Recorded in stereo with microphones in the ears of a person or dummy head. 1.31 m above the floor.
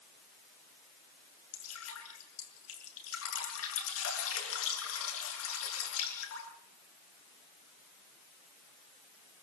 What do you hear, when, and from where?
1.5 s dripping: 85° left, 7.5 m